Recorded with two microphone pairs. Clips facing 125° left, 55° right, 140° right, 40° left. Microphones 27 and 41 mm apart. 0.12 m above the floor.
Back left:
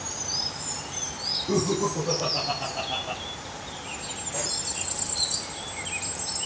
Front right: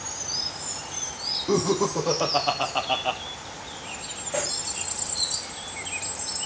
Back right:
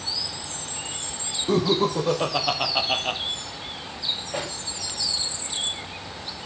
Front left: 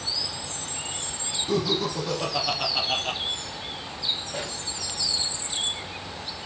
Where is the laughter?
90° right, 5 m; by 3.2 s 70° right, 3 m.